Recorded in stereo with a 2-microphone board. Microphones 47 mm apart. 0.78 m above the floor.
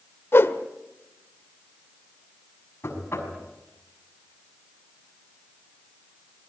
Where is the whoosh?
55° left (ahead or behind), 1.4 m.